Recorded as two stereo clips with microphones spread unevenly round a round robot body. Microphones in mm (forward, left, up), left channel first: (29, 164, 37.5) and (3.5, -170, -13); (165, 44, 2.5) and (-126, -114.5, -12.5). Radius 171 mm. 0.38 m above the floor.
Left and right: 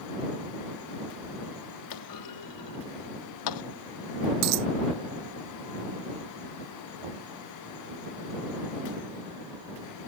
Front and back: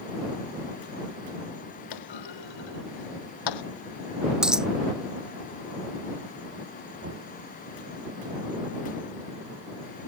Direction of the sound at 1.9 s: 55° left.